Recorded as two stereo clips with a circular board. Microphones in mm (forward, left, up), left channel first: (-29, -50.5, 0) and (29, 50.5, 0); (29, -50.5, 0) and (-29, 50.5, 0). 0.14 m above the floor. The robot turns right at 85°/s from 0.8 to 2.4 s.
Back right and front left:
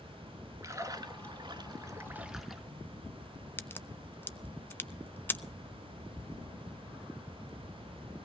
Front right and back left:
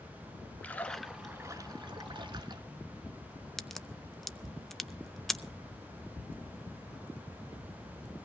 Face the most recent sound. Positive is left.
turn(degrees=-145)